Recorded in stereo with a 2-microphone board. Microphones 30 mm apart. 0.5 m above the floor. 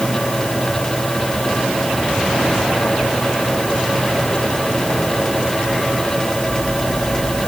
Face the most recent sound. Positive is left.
No sound to turn to.